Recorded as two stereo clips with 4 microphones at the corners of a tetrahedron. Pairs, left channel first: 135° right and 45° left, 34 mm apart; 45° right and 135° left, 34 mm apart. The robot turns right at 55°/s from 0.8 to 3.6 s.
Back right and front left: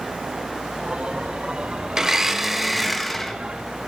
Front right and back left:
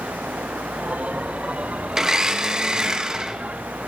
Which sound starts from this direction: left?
A blender, at 1.9 s.